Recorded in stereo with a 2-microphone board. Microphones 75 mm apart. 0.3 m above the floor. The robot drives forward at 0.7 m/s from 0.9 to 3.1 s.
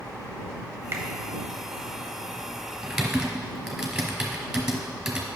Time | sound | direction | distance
0.9 | a finger snap | 35° right (ahead or behind) | 0.9 m
2.8 | typing on a keyboard | 5° right (ahead or behind) | 1.6 m